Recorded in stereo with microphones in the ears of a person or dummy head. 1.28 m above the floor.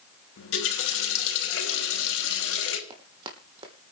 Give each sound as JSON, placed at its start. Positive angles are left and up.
{"t": 0.4, "sound": "a running tap", "side_deg": 85, "distance_m": 3.0}
{"t": 2.9, "sound": "running footsteps", "side_deg": -30, "distance_m": 3.0}